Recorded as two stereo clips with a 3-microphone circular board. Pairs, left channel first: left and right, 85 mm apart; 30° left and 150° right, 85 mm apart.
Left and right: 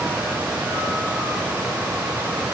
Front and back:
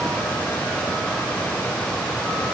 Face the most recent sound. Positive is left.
No sound to turn to.